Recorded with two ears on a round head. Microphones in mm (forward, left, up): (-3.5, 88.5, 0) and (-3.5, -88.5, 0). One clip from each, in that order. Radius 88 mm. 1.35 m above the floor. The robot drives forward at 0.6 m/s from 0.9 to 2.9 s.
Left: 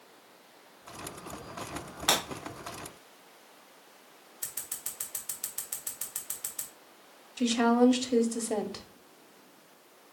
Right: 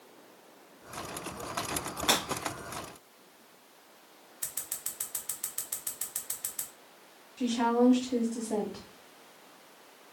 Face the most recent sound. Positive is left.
turn(degrees=70)  # may be behind; listen again after turning